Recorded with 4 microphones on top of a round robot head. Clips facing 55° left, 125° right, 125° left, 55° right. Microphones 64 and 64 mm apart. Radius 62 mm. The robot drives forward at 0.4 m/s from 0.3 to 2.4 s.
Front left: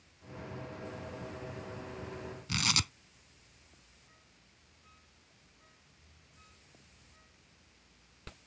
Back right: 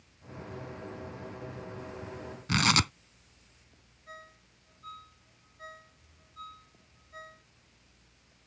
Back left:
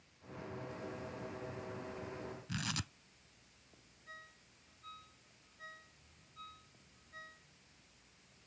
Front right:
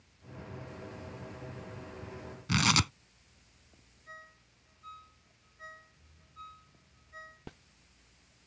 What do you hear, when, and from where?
2.5 s tearing paper: 80° right
4.1 s a ringtone: 125° right